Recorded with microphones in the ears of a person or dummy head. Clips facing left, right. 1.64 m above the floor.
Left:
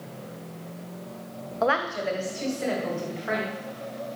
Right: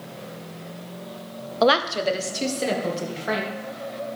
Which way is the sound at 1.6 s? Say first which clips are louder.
Right 6 dB; 45° right (ahead or behind).